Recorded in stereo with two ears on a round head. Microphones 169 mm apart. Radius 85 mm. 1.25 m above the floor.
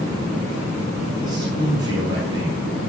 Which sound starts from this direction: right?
A man speaking, at 1.2 s.